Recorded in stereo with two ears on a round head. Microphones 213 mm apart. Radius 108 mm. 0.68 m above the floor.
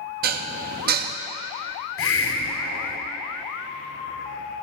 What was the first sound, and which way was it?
Dishes clattering, 40° right (ahead or behind).